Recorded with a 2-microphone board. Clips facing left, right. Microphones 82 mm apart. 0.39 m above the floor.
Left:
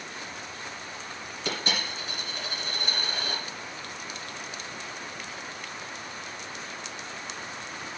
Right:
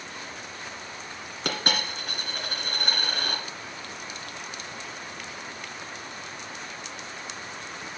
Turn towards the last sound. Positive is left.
turn(degrees=-60)  # may be behind; listen again after turning